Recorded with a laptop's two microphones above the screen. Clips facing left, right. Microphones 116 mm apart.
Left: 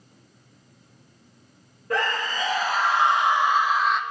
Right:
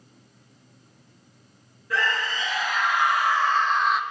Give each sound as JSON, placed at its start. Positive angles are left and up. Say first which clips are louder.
{"t": 1.9, "sound": "a scream", "louder": "left 1 dB", "side_deg": 50, "distance_m": 1.4}